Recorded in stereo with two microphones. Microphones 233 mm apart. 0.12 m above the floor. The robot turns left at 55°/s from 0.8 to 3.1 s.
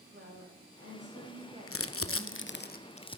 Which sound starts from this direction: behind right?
A woman speaking, at 0.1 s.